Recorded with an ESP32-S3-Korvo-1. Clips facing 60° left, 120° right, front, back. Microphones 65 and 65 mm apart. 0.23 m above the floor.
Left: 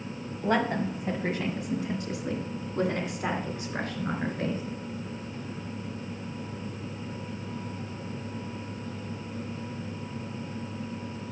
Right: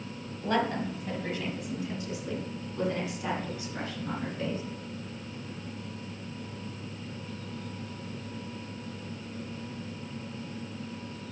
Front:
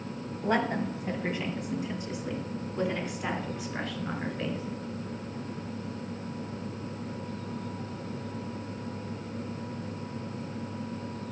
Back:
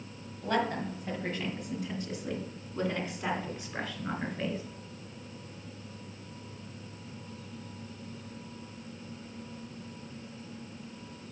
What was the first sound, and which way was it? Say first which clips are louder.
A woman speaking: left 2 dB, front 2 dB; 35° left.